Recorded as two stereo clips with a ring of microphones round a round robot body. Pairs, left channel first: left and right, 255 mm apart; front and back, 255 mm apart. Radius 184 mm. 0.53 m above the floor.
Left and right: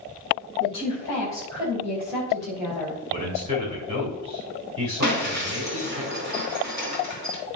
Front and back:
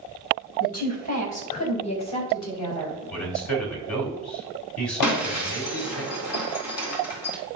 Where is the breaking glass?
25° right, 2 m.